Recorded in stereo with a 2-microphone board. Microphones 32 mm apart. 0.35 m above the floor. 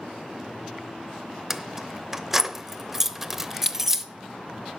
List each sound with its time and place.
1.5 s keys jangling: 10° right (ahead or behind), 0.7 m